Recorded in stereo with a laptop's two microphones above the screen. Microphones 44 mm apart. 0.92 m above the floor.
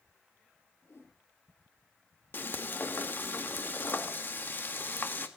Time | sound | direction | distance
0.8 | a whoosh | 70° left (ahead or behind) | 5 m
2.3 | frying | 50° left (ahead or behind) | 1.8 m